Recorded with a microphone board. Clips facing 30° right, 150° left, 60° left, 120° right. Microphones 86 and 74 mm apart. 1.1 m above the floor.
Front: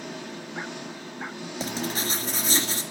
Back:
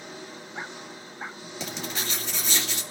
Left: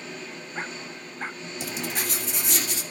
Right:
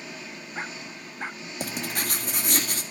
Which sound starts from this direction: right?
Writing, at 1.6 s.